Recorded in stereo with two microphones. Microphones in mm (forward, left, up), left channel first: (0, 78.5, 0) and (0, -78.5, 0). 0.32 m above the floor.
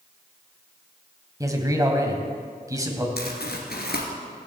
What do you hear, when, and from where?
1.4 s a man speaking: 20° right (ahead or behind), 2.0 m
3.2 s crumpling: 80° left, 2 m